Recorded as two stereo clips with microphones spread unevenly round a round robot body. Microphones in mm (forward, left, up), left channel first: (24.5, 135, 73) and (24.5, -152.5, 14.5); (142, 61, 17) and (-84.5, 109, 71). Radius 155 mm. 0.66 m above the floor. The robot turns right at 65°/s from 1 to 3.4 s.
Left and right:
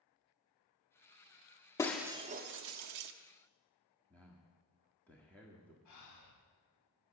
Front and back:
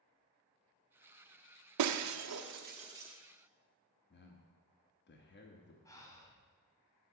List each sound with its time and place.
1.8 s breaking glass: 170° left, 0.5 m; by 3.1 s 100° right, 0.5 m
4.1 s a man speaking: straight ahead, 1.3 m
5.8 s breathing: 60° left, 1.7 m